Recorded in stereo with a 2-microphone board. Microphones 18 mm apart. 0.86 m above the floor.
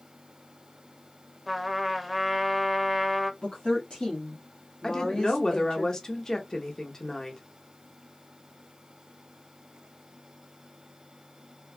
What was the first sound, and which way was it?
A trumpet, 10° right (ahead or behind).